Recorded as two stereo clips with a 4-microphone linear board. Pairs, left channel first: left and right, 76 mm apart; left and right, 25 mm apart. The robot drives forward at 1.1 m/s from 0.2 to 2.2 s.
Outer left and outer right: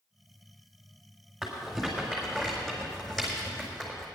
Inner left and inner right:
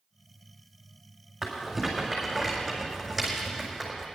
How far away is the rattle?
About 5.5 m.